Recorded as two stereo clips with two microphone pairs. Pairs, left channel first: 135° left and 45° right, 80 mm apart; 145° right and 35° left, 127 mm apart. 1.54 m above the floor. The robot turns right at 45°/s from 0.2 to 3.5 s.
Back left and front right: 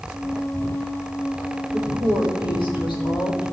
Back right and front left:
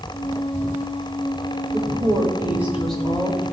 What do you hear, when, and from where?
1.7 s a woman speaking: 75° left, 4.5 m; by 3.4 s 150° left, 4.5 m